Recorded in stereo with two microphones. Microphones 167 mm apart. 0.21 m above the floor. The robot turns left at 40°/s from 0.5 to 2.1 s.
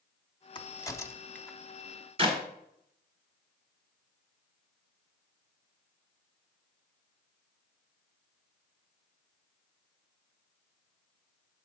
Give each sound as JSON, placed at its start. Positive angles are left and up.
{"t": 0.6, "sound": "a crack", "side_deg": 30, "distance_m": 0.5}
{"t": 2.2, "sound": "a clap", "side_deg": -35, "distance_m": 1.5}